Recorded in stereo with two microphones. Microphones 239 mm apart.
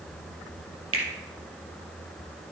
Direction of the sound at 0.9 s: 60° right (ahead or behind).